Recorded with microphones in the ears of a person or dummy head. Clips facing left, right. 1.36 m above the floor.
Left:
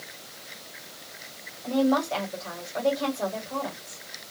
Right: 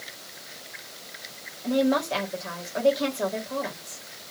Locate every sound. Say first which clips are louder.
1.6 s a woman speaking: even; 15° right (ahead or behind), 1.4 m